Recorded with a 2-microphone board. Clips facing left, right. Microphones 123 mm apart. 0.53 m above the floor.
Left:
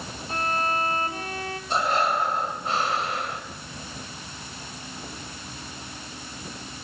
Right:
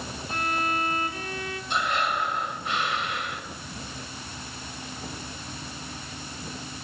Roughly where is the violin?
Left.